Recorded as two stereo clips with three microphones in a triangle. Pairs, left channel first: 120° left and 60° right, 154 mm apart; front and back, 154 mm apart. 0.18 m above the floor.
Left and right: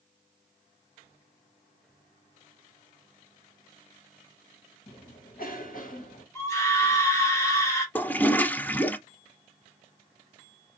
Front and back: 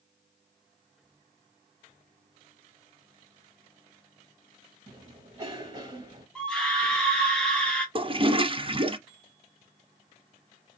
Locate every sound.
4.9 s a cough: 120° left, 3 m
6.3 s a scream: 80° left, 1.2 m
8.0 s a toilet flushing: 165° right, 0.5 m